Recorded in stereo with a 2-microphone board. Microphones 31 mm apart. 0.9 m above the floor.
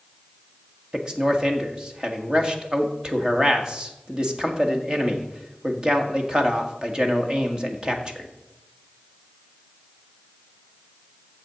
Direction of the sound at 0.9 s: 25° right (ahead or behind).